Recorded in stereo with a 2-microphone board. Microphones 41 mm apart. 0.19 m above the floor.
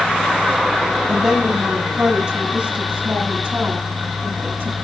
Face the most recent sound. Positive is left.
turn(degrees=-45)  # may be behind; listen again after turning